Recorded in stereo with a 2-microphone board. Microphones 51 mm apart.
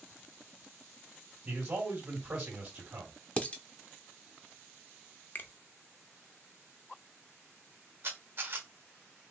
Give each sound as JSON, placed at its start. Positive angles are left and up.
{"t": 1.4, "sound": "a man speaking", "side_deg": -35, "distance_m": 3.0}
{"t": 3.4, "sound": "dishes clattering", "side_deg": 25, "distance_m": 0.6}
{"t": 5.3, "sound": "a finger snap", "side_deg": 40, "distance_m": 0.6}
{"t": 8.0, "sound": "a camera shutter", "side_deg": -45, "distance_m": 1.4}